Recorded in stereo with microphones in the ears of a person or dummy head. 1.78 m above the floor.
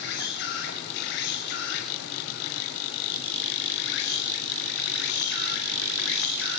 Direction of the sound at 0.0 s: 65° left (ahead or behind).